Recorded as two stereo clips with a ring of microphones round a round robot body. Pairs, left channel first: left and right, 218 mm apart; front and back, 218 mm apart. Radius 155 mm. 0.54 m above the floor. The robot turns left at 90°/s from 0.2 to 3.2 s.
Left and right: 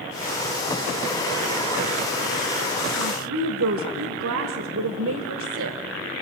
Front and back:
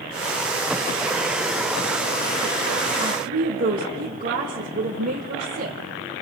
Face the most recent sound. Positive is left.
turn(degrees=-120)